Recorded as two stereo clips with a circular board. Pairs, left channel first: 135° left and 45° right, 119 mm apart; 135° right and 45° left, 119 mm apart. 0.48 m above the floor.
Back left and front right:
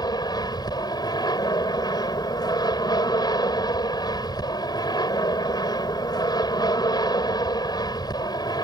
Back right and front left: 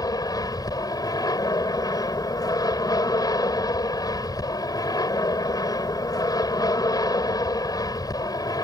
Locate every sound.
0.0 s an aircraft: straight behind